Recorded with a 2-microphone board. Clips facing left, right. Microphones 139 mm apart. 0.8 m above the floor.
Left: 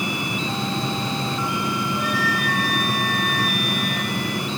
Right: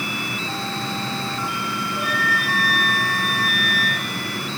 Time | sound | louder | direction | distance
2.0 | a flute | left 1 dB | 10° right (ahead or behind) | 7 m